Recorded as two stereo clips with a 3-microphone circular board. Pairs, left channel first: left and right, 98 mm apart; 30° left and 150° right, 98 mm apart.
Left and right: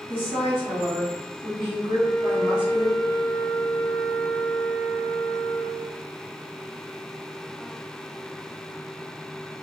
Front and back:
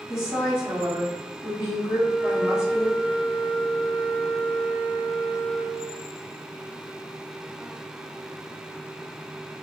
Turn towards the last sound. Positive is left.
turn(degrees=-90)